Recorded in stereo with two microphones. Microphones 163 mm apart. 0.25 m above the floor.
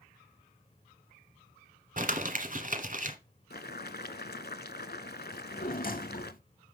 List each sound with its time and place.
2.0 s crumpling: 55° right (ahead or behind), 1.3 m
3.5 s boiling: 80° left, 0.6 m
5.3 s a drawer: 60° left (ahead or behind), 0.7 m